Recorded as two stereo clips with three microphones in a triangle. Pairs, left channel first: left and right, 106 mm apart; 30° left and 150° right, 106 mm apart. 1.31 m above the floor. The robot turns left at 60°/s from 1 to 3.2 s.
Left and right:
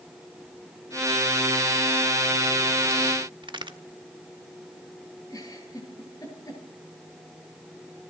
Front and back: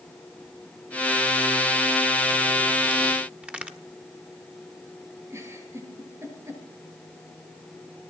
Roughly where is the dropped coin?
No dropped coin in this recording.